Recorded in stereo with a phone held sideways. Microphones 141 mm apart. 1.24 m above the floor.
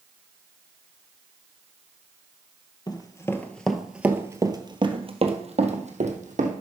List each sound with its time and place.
2.9 s running footsteps: 30° left (ahead or behind), 1.3 m; by 6.5 s 60° right (ahead or behind), 2.5 m